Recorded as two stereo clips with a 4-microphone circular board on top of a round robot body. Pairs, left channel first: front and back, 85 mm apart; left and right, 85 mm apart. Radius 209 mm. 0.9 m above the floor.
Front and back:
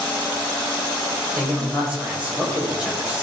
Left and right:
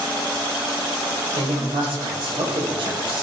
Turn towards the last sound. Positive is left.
turn(degrees=-105)